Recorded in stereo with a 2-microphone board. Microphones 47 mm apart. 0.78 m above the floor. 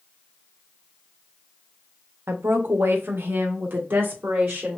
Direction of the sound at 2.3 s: 60° right (ahead or behind).